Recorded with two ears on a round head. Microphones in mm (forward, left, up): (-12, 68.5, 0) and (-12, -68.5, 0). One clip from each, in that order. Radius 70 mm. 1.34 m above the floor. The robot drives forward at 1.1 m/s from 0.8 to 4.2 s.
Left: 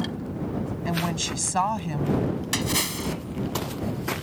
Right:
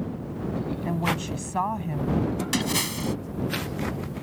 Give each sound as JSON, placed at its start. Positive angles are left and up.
{"t": 0.8, "sound": "a woman speaking", "side_deg": 65}
{"t": 2.5, "sound": "a splash", "side_deg": 10}